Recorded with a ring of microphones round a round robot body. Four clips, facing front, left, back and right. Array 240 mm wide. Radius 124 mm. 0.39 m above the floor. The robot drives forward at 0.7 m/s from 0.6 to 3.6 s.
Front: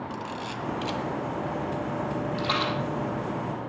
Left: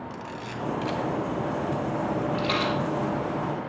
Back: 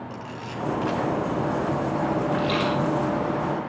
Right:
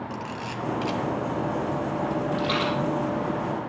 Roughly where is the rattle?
Ahead.